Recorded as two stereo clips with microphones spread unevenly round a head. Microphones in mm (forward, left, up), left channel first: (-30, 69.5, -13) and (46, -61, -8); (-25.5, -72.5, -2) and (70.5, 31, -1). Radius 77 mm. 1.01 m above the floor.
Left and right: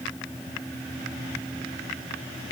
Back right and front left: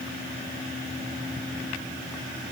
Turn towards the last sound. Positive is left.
No sound to turn to.